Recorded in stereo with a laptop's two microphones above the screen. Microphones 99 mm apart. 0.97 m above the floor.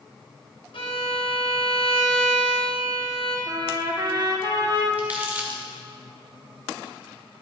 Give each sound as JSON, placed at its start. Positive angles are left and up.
{"t": 0.7, "sound": "a violin", "side_deg": 65, "distance_m": 3.0}
{"t": 3.5, "sound": "a trumpet", "side_deg": -45, "distance_m": 1.8}
{"t": 5.0, "sound": "crumpling", "side_deg": -15, "distance_m": 1.7}